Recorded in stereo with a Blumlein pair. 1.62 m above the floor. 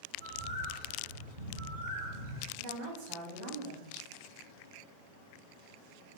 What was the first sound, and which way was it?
A bird, 65° right.